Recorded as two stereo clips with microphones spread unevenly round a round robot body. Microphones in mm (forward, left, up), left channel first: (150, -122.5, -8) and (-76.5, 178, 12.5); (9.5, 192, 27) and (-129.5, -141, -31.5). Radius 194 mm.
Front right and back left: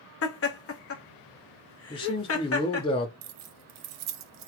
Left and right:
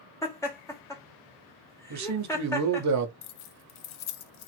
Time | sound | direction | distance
0.2 | laughter | 20° right | 1.0 m
1.9 | a man speaking | 125° right | 0.7 m
3.2 | keys jangling | 105° left | 0.5 m